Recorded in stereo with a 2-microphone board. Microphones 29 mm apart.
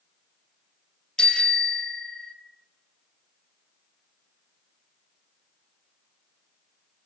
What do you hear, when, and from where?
1.2 s a bicycle bell: 30° left (ahead or behind), 4 m